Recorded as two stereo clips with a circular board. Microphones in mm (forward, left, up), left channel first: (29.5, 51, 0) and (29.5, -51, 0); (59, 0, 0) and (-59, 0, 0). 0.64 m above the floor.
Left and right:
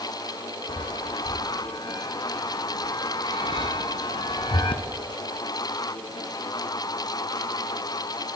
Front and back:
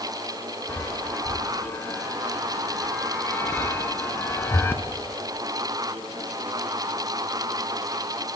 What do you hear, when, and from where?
0.7 s a chime: 70° left, 1.0 m